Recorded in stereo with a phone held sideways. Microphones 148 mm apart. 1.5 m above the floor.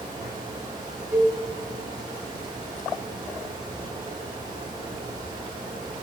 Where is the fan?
25° right (ahead or behind), 2.5 m.